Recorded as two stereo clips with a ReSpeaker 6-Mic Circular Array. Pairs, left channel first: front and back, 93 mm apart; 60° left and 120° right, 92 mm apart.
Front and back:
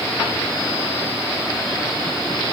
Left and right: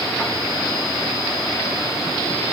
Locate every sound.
Only background noise.